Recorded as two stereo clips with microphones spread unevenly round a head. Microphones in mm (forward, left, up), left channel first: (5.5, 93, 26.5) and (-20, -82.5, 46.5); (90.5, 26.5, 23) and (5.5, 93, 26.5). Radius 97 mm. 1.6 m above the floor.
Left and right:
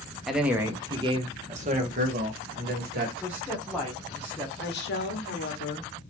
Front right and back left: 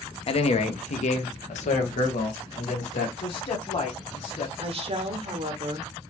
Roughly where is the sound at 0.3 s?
Ahead.